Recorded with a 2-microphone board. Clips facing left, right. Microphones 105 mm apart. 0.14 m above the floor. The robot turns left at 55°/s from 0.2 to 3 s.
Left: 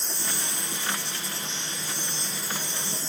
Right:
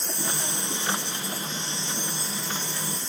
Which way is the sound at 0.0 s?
60° right.